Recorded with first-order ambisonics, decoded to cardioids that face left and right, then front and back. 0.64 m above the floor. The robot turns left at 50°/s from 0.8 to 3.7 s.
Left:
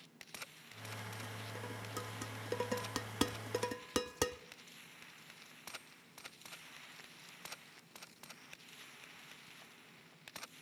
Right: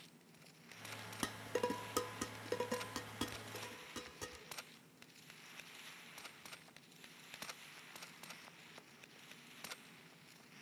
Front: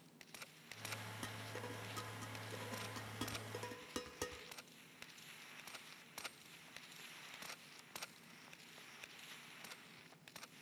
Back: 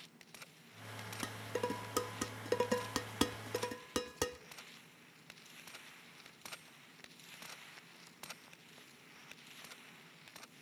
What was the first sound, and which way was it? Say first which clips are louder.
Dishes clattering: right 7 dB, back 13 dB; 115° right.